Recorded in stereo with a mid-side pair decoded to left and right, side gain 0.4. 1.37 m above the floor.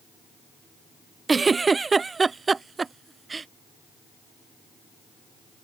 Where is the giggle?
30° right.